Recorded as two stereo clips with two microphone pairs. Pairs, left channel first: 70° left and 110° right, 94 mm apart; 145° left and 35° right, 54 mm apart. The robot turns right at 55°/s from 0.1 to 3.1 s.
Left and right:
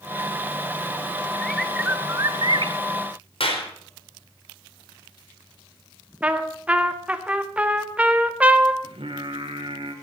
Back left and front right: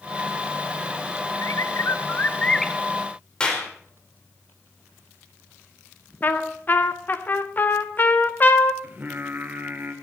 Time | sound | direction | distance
1.4 | a bird | 150° left | 0.8 m
3.4 | a clap | 70° left | 4.5 m
6.2 | a trumpet | 175° left | 1.5 m
8.8 | singing | 95° right | 2 m